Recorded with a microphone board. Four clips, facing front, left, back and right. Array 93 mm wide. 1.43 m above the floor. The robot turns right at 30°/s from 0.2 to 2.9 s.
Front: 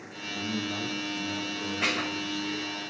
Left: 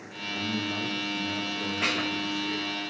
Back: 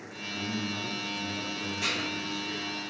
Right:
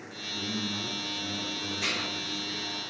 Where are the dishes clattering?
40° left, 0.9 m; by 2.1 s 50° left, 0.9 m.